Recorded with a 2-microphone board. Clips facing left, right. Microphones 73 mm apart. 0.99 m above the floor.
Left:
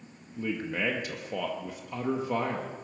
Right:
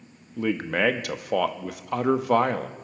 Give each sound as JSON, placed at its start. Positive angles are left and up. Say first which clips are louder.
{"t": 0.4, "sound": "a man speaking", "louder": "right 7 dB", "side_deg": -80, "distance_m": 1.0}